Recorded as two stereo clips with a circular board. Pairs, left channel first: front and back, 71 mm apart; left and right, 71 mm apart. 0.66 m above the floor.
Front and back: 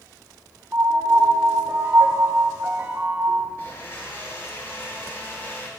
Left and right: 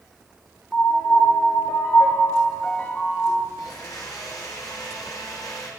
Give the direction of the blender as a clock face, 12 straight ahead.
10 o'clock.